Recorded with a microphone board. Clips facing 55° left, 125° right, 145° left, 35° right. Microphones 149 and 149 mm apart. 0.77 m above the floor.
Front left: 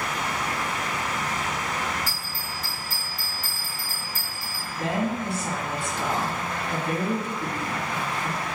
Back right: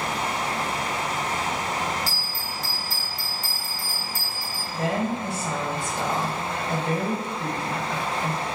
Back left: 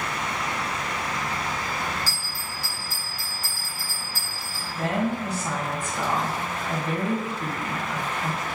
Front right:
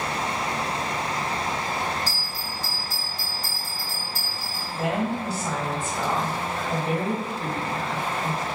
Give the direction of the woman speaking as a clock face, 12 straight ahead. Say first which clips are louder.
Back right 1 dB, even; 4 o'clock.